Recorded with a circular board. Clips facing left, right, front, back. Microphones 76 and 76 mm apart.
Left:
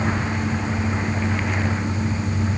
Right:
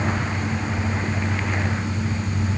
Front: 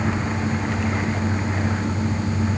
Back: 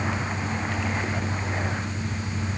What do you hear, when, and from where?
Only background noise.